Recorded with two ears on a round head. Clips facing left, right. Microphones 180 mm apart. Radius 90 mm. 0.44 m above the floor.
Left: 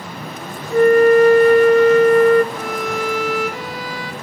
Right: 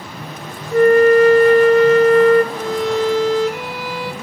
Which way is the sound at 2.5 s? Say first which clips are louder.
Right 5 dB; 20° right (ahead or behind).